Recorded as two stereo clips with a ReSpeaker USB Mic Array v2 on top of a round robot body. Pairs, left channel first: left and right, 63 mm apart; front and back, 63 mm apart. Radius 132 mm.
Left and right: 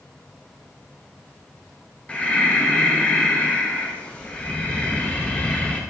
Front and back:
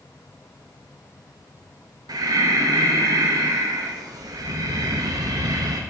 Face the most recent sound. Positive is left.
turn(degrees=165)